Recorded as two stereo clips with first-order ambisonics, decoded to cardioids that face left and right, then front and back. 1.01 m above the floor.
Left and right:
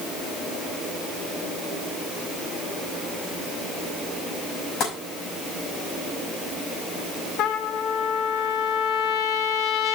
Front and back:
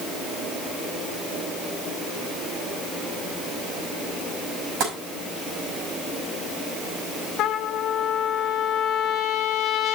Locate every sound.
4.8 s tapping: 140° left, 6 m
7.4 s a trumpet: 50° left, 1.0 m